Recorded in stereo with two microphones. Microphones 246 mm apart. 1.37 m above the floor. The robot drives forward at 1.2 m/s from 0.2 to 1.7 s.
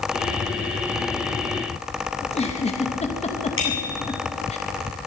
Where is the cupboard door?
No cupboard door in this recording.